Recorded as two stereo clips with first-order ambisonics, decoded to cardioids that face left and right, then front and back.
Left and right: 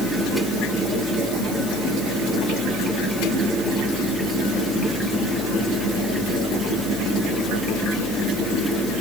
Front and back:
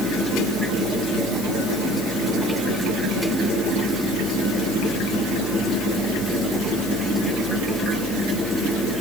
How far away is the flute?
No flute in this recording.